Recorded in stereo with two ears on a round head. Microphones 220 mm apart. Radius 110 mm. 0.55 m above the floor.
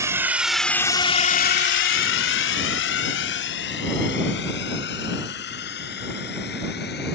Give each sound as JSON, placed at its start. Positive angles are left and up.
{"t": 0.0, "sound": "a drone", "side_deg": -10}